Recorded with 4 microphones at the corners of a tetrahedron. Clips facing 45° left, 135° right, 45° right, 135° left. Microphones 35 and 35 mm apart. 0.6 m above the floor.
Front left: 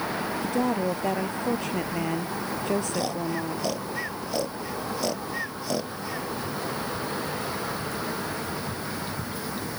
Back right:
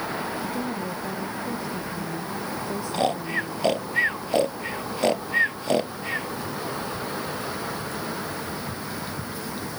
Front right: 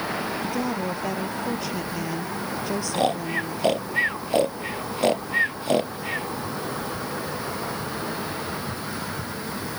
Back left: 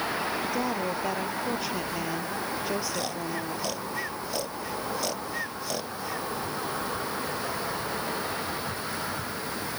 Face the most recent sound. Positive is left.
turn(degrees=-90)